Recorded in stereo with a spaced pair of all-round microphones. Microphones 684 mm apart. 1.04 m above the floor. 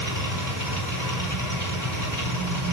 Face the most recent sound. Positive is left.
turn(degrees=25)  # may be behind; listen again after turning